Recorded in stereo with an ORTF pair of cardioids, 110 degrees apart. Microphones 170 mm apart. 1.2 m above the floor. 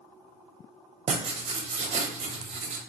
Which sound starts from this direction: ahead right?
Writing, at 1.1 s.